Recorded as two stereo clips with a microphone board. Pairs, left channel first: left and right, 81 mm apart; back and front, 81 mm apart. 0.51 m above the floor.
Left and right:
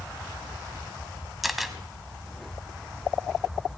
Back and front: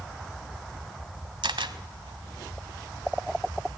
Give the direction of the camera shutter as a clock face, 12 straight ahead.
12 o'clock.